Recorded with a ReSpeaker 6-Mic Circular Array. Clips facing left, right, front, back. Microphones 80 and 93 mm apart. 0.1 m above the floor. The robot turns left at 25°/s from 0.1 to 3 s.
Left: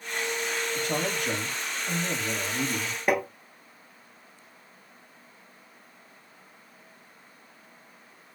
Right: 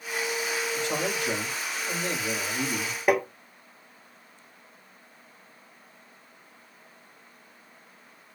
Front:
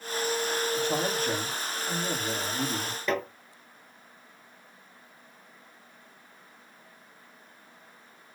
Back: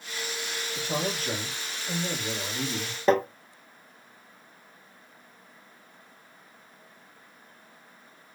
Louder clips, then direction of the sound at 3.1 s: Right 2 dB, back 8 dB; 170° right.